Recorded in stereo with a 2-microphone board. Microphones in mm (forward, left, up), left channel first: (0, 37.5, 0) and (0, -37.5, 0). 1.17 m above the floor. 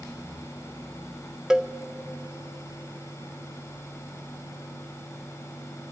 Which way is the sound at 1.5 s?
5° right (ahead or behind).